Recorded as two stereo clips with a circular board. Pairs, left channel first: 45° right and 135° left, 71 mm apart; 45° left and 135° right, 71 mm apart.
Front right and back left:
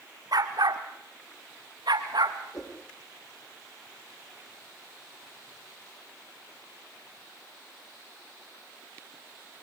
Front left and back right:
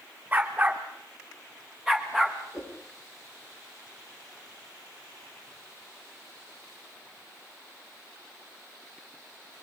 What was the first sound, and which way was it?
A dog barking, 155° left.